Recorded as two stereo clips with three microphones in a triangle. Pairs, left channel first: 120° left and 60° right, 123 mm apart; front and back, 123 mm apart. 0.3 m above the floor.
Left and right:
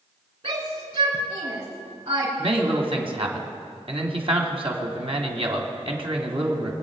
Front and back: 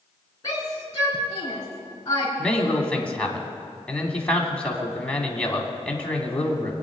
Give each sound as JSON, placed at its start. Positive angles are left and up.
{"t": 0.4, "sound": "a shout", "azimuth_deg": -55, "distance_m": 4.0}
{"t": 2.4, "sound": "a man speaking", "azimuth_deg": -80, "distance_m": 2.5}